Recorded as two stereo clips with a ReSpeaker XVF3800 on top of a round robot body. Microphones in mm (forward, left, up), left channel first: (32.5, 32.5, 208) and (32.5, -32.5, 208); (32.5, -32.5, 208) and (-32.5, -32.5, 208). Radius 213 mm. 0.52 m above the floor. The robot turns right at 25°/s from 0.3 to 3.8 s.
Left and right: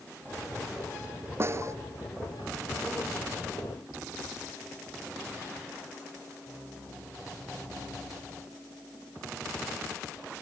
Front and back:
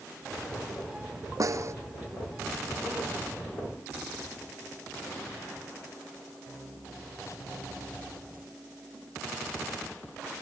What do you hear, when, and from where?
1.4 s a snare drum: 145° right; by 1.7 s 135° right